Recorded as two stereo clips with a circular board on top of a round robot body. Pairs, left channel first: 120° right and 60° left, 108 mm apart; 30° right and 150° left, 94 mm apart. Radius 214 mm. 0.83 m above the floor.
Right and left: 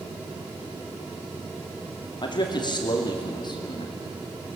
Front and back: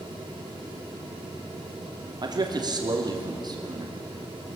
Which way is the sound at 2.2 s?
165° right.